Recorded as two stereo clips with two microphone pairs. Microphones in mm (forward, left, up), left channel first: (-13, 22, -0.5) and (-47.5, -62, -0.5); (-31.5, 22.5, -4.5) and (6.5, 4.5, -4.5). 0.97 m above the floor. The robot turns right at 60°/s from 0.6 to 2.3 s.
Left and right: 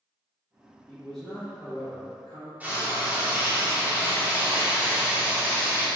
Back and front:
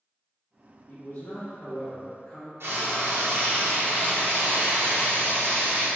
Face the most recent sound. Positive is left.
turn(degrees=-40)